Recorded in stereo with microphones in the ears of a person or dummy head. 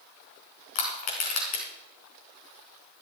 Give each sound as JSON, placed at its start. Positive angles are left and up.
{"t": 0.8, "sound": "crushing", "side_deg": 50, "distance_m": 3.5}